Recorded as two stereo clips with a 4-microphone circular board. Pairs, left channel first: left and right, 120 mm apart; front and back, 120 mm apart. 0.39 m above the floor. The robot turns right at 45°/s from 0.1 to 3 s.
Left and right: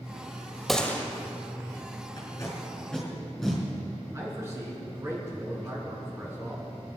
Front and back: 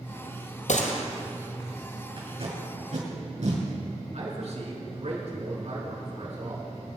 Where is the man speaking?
155° right, 4 m.